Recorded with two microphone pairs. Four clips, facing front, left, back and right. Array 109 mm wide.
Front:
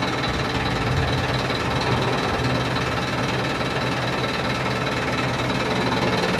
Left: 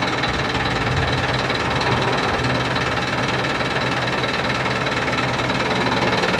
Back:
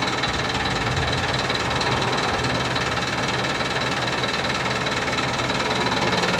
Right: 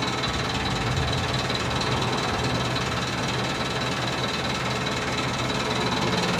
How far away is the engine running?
About 0.7 m.